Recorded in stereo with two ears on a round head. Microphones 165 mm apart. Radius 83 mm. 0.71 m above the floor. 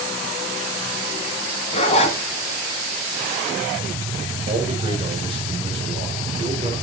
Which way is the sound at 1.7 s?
35° left (ahead or behind).